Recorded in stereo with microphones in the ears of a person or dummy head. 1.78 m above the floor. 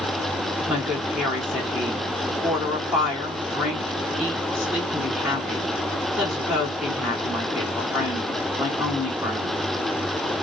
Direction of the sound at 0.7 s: 5° right (ahead or behind).